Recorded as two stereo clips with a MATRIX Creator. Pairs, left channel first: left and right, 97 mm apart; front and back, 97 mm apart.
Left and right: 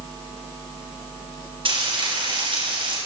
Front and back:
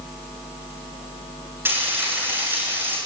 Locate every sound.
1.6 s frying: 115° right, 8.5 m